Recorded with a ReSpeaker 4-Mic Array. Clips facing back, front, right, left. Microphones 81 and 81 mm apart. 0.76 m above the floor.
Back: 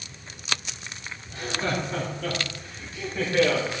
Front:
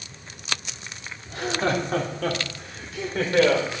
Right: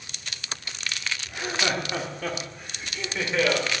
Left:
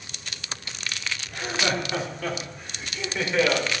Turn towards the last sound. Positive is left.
turn(degrees=0)